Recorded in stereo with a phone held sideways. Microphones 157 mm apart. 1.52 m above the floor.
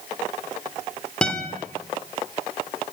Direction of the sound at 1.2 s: 5° left (ahead or behind).